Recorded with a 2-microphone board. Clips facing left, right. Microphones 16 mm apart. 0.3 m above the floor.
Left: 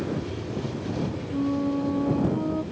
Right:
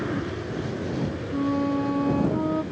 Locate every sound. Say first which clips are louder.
0.0 s an aircraft: right 2 dB; 50° right (ahead or behind); by 2.7 s 40° right (ahead or behind)
1.3 s a flute: right 1 dB; 40° right (ahead or behind)